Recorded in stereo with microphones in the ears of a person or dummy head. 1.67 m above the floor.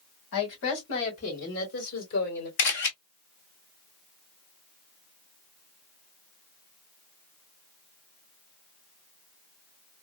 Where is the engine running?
No engine running in this recording.